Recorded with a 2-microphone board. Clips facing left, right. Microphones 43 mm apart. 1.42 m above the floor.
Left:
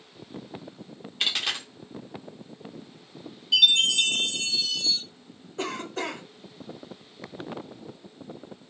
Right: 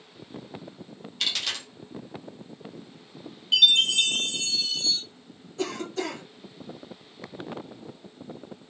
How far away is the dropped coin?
About 0.9 m.